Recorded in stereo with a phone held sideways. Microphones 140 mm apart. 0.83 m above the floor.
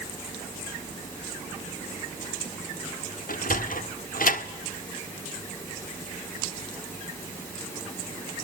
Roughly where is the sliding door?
Left.